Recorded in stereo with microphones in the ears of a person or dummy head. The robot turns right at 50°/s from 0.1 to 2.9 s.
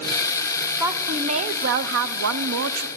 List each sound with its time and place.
0.8 s a woman speaking: 170° right, 0.7 m; by 2.9 s 70° right, 0.7 m